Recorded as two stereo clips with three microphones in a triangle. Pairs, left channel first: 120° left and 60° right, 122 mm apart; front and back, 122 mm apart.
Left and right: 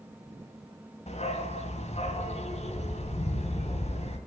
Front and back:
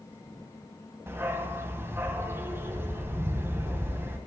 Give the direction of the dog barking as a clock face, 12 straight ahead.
8 o'clock.